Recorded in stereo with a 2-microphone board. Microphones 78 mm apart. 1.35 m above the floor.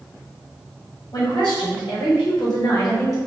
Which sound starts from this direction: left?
A woman speaking, at 1.1 s.